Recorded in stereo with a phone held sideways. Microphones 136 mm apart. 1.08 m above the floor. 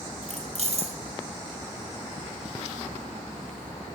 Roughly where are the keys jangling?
Right.